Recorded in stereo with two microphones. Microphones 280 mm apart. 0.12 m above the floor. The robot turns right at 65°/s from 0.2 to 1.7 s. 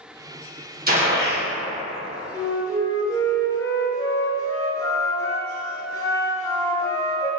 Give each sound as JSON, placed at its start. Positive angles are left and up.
{"t": 0.9, "sound": "a gunshot", "azimuth_deg": -35, "distance_m": 1.0}
{"t": 2.3, "sound": "a flute", "side_deg": 10, "distance_m": 0.5}